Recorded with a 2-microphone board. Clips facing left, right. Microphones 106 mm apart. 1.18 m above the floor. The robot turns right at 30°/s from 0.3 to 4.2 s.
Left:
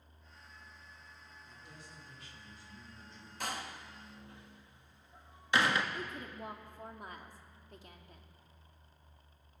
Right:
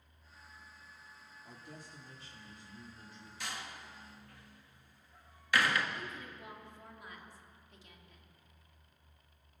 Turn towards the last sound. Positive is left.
turn(degrees=50)  # may be behind; listen again after turning